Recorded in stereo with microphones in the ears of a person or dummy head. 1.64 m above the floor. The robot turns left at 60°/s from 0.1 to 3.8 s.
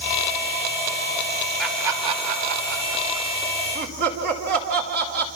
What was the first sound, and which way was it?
Laughter, 5° left (ahead or behind).